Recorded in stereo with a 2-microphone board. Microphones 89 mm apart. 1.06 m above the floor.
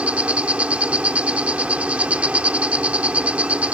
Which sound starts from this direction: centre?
An insect, at 0.0 s.